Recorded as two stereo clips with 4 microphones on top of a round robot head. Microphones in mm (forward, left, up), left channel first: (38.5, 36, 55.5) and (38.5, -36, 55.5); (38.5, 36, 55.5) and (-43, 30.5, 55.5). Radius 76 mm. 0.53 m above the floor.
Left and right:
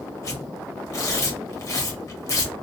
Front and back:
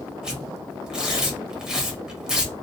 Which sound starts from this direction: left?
Tearing paper, at 0.2 s.